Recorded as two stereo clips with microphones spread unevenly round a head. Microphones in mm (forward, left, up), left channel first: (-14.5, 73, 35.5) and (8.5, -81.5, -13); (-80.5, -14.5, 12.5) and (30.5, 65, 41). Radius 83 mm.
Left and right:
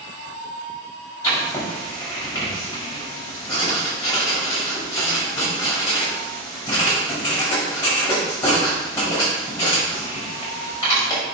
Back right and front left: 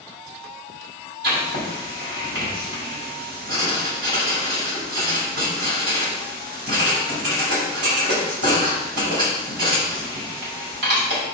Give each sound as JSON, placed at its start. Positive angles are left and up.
{"t": 1.2, "sound": "writing", "azimuth_deg": 25, "distance_m": 5.5}